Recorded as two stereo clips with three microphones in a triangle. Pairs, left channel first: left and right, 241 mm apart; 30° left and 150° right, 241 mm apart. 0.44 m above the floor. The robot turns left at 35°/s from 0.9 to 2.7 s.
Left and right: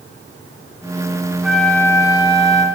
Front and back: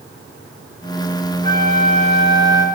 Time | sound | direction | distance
1.4 | a flute | straight behind | 1.2 m